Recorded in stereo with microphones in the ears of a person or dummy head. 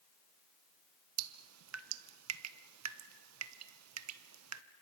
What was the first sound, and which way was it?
Dripping, 85° right.